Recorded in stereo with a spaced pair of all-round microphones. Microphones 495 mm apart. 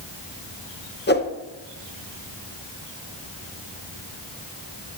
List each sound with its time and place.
1.1 s a whoosh: 20° left (ahead or behind), 0.6 m